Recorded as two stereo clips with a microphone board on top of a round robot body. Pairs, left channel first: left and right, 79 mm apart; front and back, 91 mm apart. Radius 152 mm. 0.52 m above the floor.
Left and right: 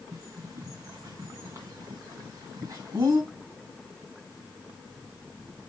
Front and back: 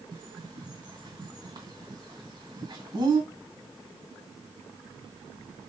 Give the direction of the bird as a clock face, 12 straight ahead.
5 o'clock.